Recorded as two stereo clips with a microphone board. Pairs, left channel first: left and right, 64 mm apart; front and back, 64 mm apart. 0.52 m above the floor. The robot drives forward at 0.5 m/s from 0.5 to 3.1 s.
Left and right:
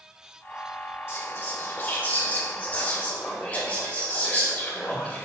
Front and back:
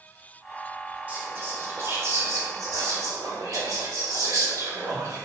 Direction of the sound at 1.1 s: 120° left.